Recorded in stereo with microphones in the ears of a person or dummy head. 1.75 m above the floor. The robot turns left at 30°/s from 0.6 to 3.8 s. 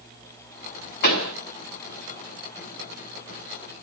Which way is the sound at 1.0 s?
45° left (ahead or behind).